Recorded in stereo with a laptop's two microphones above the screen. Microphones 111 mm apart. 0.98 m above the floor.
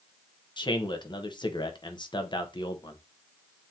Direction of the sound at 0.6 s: 45° left (ahead or behind).